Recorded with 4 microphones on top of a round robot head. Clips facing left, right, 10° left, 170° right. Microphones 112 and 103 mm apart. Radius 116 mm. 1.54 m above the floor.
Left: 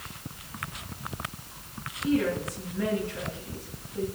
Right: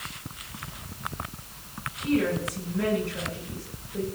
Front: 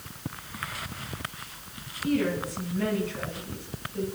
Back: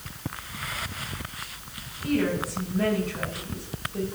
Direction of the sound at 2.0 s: 110° right.